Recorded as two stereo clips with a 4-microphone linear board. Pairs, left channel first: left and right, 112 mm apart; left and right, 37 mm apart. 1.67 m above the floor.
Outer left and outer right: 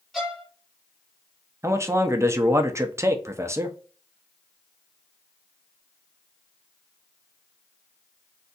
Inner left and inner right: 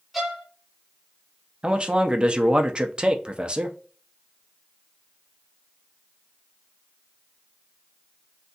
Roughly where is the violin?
Centre.